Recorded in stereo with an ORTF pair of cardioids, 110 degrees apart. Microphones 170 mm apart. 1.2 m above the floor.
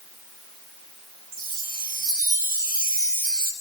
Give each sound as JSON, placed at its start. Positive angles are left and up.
{"t": 1.3, "sound": "a chime", "azimuth_deg": -55, "distance_m": 7.0}